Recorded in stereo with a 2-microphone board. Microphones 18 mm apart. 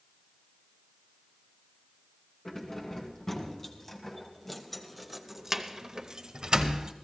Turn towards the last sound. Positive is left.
turn(degrees=-55)  # may be behind; listen again after turning